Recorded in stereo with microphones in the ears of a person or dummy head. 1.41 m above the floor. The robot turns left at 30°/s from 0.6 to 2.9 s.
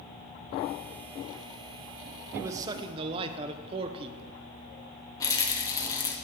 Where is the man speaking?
10° right (ahead or behind), 0.5 m; by 4.4 s 30° right (ahead or behind), 0.5 m.